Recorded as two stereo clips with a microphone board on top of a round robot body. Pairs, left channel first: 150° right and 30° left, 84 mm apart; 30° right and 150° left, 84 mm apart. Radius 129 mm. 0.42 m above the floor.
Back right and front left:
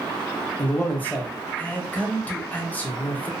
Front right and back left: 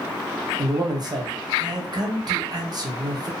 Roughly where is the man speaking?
Behind left.